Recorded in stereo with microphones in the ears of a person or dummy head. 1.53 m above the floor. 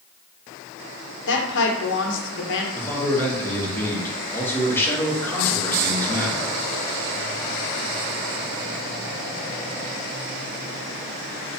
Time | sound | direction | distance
1.3 | a woman speaking | 60° left (ahead or behind) | 1.1 m
2.7 | a man speaking | 10° left (ahead or behind) | 1.2 m